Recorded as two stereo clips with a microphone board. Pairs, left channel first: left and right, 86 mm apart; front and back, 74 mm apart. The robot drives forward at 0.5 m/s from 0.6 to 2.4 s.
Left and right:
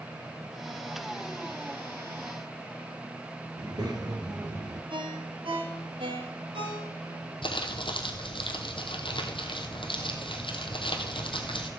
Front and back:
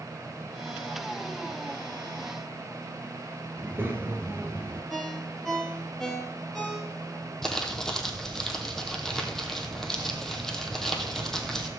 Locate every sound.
3.6 s a child speaking: 120° right, 3 m
4.9 s a ringtone: 90° right, 3.5 m
7.4 s crumpling: 85° left, 2 m